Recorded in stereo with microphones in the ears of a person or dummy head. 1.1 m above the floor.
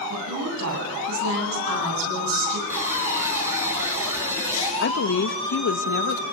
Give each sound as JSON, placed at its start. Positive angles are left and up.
{"t": 0.1, "sound": "a woman speaking", "side_deg": -85, "distance_m": 9.5}
{"t": 2.7, "sound": "boiling", "side_deg": -20, "distance_m": 6.5}
{"t": 4.8, "sound": "a woman speaking", "side_deg": 65, "distance_m": 1.2}